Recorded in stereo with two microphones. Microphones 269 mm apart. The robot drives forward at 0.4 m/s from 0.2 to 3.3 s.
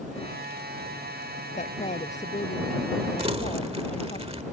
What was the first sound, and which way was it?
A woman speaking, 25° left (ahead or behind).